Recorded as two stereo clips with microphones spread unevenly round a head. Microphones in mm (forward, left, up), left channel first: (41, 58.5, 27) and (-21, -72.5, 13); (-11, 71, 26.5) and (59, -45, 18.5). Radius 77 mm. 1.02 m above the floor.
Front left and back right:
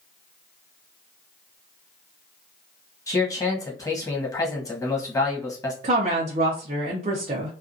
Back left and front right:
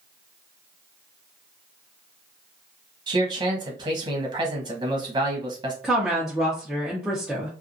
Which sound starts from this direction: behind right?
A woman speaking, at 5.8 s.